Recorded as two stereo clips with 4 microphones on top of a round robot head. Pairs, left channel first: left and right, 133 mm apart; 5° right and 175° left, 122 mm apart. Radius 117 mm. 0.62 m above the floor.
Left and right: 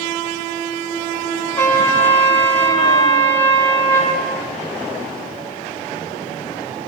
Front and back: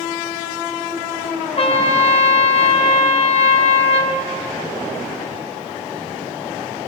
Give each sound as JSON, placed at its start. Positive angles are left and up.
{"t": 1.6, "sound": "a trumpet", "azimuth_deg": 20, "distance_m": 1.9}